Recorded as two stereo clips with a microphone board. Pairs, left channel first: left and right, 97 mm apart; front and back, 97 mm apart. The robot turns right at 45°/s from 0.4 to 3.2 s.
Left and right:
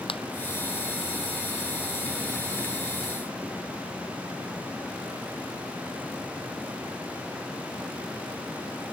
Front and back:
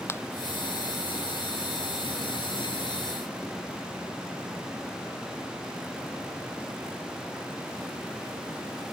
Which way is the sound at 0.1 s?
65° left.